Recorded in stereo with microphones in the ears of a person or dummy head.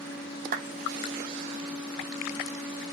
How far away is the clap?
About 1.4 m.